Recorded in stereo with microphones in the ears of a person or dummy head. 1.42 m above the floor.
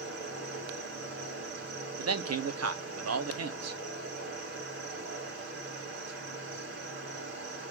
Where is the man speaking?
75° right (ahead or behind), 0.5 m.